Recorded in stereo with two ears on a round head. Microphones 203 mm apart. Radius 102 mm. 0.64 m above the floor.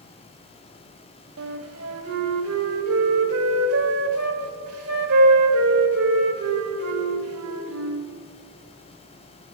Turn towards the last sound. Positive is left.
turn(degrees=-65)  # may be behind; listen again after turning